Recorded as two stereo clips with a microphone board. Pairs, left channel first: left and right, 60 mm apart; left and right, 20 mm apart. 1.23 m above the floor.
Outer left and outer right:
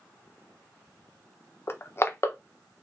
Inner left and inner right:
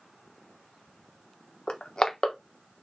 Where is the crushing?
40° left (ahead or behind), 0.7 m.